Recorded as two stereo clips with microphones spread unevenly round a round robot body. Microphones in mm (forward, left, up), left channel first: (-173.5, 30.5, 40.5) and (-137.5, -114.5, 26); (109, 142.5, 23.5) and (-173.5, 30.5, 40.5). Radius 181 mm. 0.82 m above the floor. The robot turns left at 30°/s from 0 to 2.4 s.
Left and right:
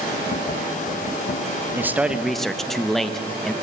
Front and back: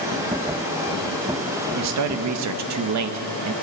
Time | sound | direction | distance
1.8 | a man speaking | 145° right | 0.9 m